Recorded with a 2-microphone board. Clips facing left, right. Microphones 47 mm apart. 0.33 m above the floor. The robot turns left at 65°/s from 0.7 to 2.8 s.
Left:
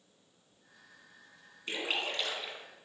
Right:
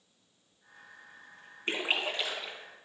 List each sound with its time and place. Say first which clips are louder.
1.7 s a splash: right 3 dB; 135° right, 1.2 m; by 2.6 s 165° left, 1.2 m